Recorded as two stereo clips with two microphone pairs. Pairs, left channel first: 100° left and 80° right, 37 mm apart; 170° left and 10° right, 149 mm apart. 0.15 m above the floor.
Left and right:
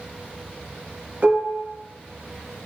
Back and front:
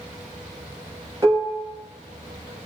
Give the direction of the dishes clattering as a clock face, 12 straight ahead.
2 o'clock.